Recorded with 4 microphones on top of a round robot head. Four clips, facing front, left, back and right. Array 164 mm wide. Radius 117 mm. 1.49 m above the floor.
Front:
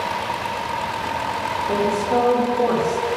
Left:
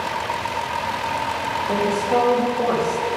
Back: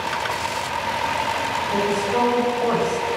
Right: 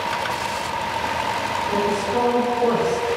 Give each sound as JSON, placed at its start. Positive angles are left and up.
{"t": 1.7, "sound": "a woman speaking", "azimuth_deg": 40, "distance_m": 4.0}